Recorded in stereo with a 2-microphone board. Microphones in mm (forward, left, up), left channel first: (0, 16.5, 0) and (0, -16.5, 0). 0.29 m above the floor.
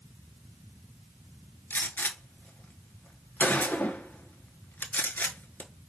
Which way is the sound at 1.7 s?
65° left (ahead or behind).